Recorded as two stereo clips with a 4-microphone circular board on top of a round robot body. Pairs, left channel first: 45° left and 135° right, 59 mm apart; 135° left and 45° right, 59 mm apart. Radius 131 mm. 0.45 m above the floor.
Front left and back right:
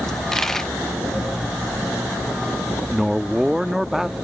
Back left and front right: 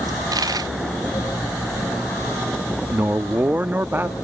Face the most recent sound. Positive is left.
turn(degrees=-60)